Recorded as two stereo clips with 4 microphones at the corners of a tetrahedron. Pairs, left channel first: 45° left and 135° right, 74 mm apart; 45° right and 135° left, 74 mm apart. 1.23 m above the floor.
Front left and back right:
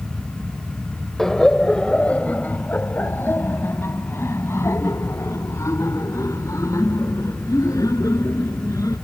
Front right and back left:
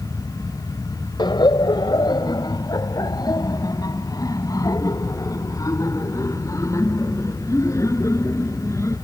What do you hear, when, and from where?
1.2 s laughter: 40° right; by 8.9 s 5° left